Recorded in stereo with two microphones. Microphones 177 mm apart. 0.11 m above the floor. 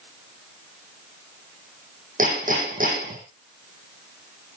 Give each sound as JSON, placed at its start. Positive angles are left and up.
{"t": 2.2, "sound": "hammering", "side_deg": -50, "distance_m": 4.5}